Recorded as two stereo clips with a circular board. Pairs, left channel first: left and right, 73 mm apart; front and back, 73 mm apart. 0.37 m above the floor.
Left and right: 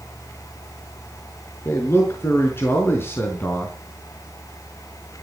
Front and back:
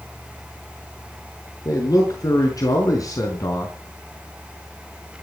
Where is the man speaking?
35° left, 6 m; by 3.7 s 30° left, 3.5 m.